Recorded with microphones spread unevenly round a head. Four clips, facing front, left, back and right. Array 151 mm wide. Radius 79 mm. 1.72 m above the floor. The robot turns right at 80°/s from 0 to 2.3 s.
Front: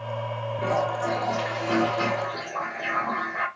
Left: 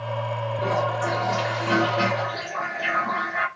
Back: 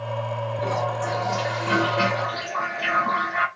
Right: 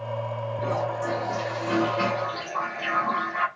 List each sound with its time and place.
0.6 s a toilet flushing: 50° left, 1.0 m; by 3.5 s 175° right, 1.0 m